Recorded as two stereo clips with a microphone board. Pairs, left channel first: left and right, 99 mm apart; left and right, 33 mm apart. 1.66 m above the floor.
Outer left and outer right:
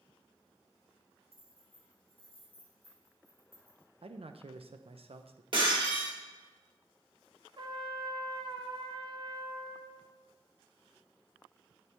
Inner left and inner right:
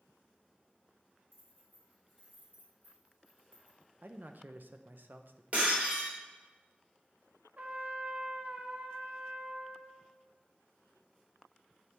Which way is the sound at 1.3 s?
70° right (ahead or behind).